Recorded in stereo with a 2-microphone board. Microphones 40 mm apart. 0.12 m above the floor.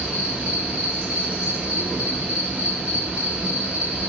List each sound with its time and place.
0.0 s an insect: 35° right (ahead or behind), 1.1 m